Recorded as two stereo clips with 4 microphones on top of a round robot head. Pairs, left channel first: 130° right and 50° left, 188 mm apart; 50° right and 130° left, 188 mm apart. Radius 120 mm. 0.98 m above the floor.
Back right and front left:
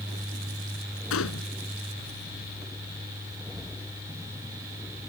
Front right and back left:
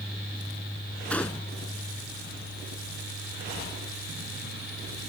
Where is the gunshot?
130° right.